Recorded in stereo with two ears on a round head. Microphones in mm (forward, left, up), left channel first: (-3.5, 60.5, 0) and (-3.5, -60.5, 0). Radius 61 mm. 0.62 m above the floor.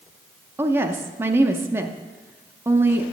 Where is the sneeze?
No sneeze in this recording.